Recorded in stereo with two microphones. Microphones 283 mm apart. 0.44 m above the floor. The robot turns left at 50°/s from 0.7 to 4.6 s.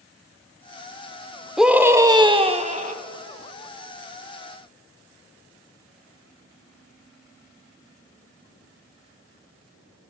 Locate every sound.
1.6 s a scream: centre (ahead or behind), 0.8 m; by 3.0 s 25° right (ahead or behind), 0.8 m